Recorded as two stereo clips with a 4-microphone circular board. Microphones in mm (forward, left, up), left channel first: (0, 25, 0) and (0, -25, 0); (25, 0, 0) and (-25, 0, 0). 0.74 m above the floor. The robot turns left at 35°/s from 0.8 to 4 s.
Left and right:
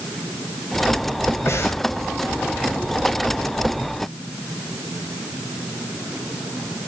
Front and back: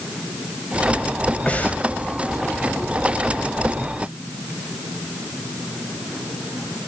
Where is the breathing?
65° left, 2 m; by 1.8 s 55° left, 2 m.